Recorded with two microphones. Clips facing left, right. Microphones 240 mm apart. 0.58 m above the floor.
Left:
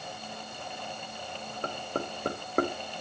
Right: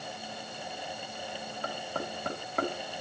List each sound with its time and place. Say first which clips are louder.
1.6 s knocking: left 4 dB; 50° left (ahead or behind), 1.8 m